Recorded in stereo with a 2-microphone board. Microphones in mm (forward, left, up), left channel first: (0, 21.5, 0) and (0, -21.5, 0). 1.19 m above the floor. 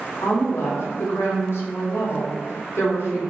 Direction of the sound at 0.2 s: 65° left (ahead or behind).